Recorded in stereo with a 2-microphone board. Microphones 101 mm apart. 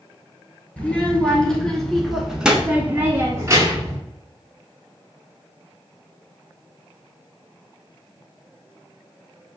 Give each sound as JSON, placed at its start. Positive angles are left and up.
{"t": 0.8, "sound": "a child speaking", "side_deg": 10, "distance_m": 1.7}